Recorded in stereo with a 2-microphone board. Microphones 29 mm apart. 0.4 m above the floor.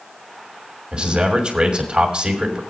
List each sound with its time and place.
0.9 s a man speaking: 35° right (ahead or behind), 2.5 m